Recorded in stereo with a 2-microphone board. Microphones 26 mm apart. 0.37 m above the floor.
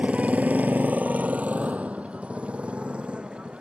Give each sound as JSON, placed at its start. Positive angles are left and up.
{"t": 0.0, "sound": "a motorcycle", "side_deg": -50}